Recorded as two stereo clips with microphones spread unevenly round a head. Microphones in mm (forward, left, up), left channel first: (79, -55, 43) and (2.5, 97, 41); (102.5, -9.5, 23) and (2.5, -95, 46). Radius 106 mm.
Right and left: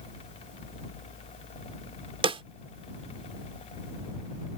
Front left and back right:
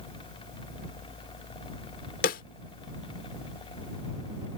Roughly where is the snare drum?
Ahead left.